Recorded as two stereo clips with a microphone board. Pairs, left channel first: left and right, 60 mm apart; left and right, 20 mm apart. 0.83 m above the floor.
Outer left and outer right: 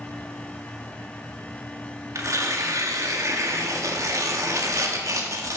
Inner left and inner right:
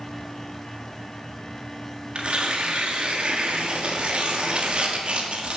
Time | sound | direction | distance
2.1 | tearing paper | 60° right (ahead or behind) | 1.5 m